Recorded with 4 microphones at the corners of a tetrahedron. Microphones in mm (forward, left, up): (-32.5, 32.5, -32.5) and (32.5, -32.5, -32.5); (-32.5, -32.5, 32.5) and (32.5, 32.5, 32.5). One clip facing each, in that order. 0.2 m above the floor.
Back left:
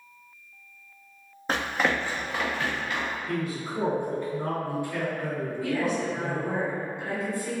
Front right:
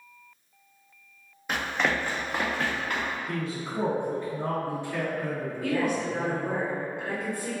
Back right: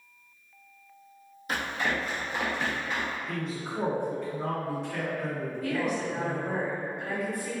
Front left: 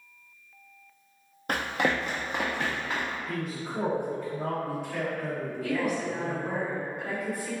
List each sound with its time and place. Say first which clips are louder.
1.5 s running footsteps: back left 1 dB, front left 3 dB; 80° left, 0.6 m; by 3.2 s 5° right, 1.5 m
3.3 s a man speaking: back left 2 dB, even; 35° right, 1.7 m
5.6 s a woman speaking: front right 1 dB, front left 1 dB; 40° right, 1.8 m